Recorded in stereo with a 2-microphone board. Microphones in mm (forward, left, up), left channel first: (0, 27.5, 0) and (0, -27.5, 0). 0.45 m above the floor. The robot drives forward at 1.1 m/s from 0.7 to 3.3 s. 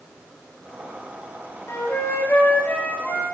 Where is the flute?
60° left (ahead or behind), 1.7 m; by 3.2 s 30° left (ahead or behind), 3 m.